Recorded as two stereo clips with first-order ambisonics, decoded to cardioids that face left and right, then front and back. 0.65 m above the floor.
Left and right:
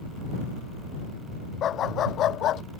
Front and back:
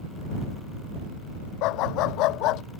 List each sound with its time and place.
1.6 s a dog barking: 30° left; by 2.6 s 40° left